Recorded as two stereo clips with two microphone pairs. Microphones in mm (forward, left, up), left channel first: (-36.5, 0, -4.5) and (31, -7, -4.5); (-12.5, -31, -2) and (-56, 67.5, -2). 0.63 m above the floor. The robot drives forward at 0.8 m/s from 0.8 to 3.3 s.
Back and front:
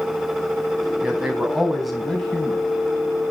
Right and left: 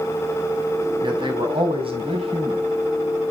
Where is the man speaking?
75° left, 4 m; by 2.6 s 95° left, 3.5 m.